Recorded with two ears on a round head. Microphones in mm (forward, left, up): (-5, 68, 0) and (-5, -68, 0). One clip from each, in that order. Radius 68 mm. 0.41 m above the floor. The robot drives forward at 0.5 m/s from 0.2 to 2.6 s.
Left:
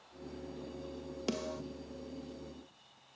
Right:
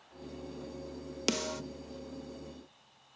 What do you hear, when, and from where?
1.3 s a snare drum: 55° right (ahead or behind), 0.5 m